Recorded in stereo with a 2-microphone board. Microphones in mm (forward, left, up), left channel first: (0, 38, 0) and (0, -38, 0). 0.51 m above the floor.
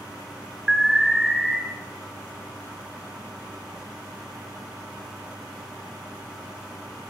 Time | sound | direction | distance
0.7 | an alarm | 5° right (ahead or behind) | 1.1 m